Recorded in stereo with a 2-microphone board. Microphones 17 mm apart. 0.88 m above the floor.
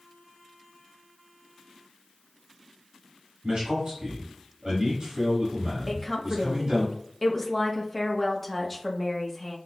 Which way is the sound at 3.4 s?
65° right (ahead or behind).